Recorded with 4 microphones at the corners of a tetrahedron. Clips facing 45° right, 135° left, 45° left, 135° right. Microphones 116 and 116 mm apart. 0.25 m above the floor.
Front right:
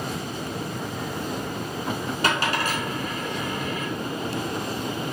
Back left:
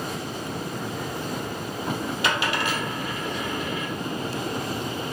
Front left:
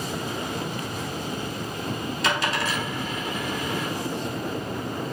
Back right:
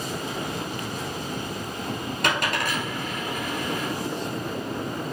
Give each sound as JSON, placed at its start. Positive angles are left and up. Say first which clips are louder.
{"t": 2.2, "sound": "a dropped coin", "louder": "front right 2 dB, even", "azimuth_deg": -95, "distance_m": 1.6}